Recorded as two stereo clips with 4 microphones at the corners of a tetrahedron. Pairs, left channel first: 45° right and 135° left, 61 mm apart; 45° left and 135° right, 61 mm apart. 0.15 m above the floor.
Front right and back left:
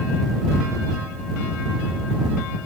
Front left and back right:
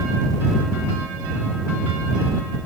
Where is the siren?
I don't hear a siren.